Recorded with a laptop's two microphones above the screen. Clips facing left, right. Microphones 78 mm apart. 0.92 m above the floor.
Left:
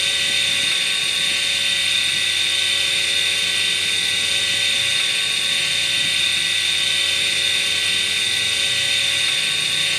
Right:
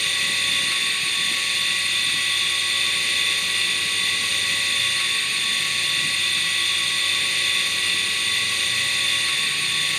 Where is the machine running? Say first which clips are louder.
Left 1 dB; 75° left (ahead or behind), 3 m.